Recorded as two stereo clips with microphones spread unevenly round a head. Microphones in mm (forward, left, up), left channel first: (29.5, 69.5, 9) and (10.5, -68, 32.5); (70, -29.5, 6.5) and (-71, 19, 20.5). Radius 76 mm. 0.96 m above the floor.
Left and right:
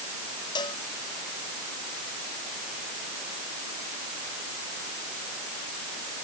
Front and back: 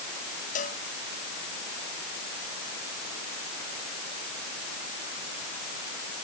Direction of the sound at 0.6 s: 20° left.